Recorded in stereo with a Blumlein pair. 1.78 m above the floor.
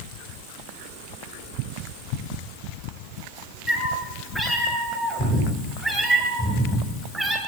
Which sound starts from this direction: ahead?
A cat meowing, at 3.7 s.